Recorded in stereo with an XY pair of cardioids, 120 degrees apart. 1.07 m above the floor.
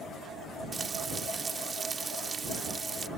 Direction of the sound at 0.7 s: 30° right.